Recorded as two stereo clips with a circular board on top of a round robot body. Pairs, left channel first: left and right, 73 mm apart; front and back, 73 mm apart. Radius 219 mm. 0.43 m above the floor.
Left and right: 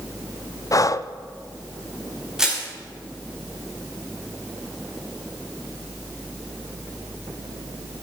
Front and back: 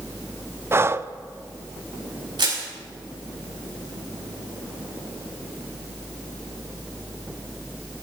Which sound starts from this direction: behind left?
Breathing, at 0.7 s.